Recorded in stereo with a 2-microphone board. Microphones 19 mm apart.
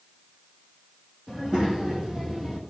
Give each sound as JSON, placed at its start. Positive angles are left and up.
{"t": 1.3, "sound": "a child speaking", "side_deg": -60, "distance_m": 3.5}